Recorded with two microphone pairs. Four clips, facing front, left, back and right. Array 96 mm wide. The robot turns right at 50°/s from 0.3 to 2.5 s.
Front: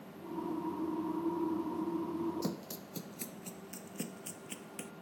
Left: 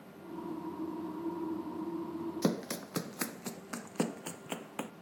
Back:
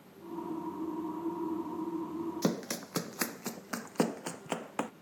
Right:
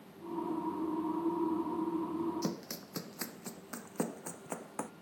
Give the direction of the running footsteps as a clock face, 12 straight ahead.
8 o'clock.